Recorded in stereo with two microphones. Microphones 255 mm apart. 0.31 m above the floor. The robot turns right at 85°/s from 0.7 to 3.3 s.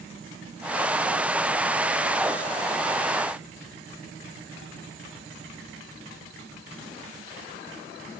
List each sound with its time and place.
Only background noise.